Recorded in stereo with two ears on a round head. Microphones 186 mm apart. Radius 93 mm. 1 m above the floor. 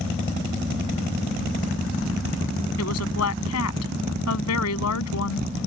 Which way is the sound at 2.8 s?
80° left.